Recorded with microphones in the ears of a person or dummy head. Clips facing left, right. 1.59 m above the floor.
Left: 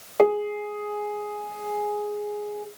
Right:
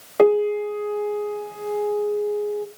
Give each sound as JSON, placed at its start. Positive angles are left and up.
{"t": 0.2, "sound": "a piano", "side_deg": -10, "distance_m": 0.9}